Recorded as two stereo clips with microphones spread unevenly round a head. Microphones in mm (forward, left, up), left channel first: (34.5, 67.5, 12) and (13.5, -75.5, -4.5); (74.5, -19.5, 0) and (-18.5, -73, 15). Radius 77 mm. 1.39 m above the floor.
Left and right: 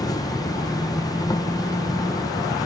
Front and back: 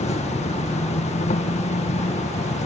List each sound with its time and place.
0.0 s an insect: 15° left